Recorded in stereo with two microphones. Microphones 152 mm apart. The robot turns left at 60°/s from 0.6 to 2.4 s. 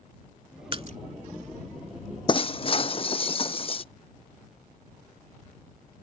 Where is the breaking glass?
35° left (ahead or behind); by 3.8 s 40° left (ahead or behind).